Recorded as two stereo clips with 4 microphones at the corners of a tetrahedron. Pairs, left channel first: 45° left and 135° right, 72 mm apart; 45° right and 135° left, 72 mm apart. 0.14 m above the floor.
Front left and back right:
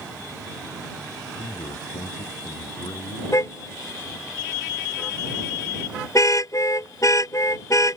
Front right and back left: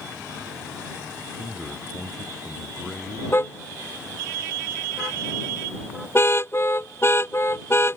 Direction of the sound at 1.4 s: 45° left.